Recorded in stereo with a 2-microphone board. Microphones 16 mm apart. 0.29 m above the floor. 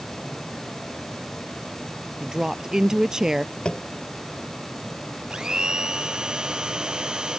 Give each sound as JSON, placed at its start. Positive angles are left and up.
{"t": 2.2, "sound": "a woman speaking", "side_deg": -35}
{"t": 3.6, "sound": "tapping", "side_deg": 65}
{"t": 5.3, "sound": "a blender", "side_deg": -50}